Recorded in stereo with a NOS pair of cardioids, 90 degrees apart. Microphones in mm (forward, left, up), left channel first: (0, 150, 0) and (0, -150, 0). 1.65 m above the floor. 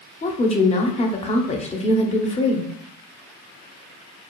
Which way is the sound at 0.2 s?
20° left.